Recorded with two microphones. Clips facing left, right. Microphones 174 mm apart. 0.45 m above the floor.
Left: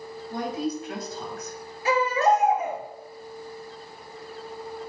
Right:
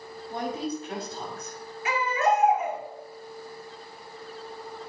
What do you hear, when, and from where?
0.3 s a woman speaking: 30° right (ahead or behind), 3.5 m
1.9 s a baby crying: 35° left (ahead or behind), 2.5 m